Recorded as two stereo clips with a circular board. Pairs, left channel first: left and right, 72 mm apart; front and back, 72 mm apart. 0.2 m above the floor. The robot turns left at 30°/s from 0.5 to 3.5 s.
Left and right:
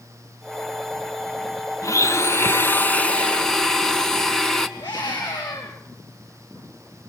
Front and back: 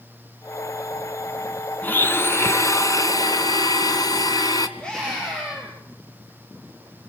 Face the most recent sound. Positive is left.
turn(degrees=75)